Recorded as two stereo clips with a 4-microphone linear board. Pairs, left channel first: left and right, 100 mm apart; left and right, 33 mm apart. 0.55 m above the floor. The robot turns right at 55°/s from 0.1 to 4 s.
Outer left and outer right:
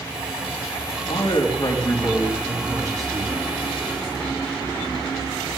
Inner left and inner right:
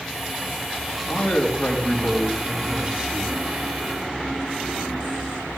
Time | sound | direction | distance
1.1 | a man speaking | 115° left | 4.5 m